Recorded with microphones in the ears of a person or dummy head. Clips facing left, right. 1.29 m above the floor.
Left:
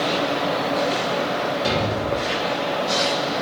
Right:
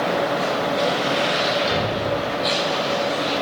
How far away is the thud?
About 6.5 m.